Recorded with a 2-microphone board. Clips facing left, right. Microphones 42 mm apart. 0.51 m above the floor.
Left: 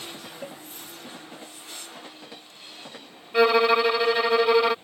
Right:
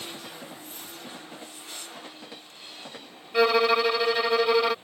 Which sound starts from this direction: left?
A cowbell, at 0.4 s.